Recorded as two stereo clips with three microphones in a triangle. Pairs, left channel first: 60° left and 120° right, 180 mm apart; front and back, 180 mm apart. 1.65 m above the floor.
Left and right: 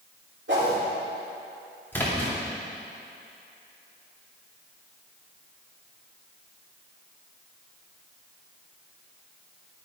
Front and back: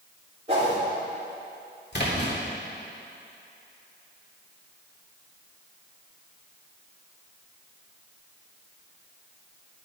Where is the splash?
20° right, 2.5 m.